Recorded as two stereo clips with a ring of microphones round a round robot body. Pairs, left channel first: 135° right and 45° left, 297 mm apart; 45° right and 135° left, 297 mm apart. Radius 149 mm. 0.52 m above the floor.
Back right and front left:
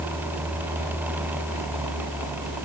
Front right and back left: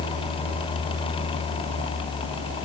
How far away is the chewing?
I don't hear chewing.